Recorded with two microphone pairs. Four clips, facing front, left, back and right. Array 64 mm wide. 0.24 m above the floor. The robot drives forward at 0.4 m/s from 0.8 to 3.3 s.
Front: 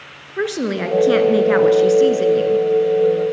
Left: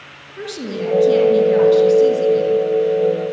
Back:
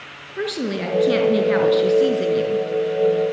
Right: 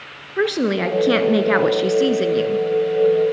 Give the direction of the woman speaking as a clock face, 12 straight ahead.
2 o'clock.